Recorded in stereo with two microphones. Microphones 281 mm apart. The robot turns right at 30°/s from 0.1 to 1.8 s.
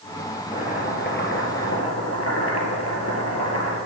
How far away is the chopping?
About 3 m.